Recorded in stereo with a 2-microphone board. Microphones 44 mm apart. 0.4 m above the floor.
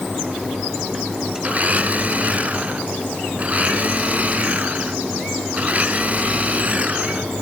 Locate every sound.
1.4 s a blender: 35° right (ahead or behind)